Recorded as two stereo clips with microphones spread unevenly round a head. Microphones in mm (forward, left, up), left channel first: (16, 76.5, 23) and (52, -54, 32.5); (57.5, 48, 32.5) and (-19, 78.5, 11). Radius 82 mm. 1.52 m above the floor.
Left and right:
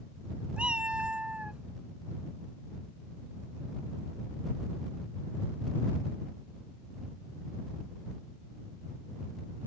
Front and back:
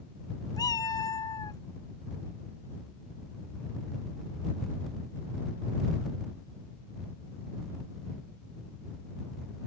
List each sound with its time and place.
0.6 s a cat meowing: 5° left